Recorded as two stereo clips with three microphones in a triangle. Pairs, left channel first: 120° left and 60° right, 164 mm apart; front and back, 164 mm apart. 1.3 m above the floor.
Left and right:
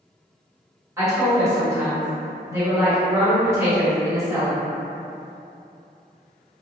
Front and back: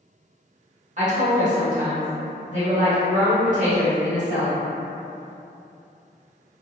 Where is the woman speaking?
135° right, 1.3 m.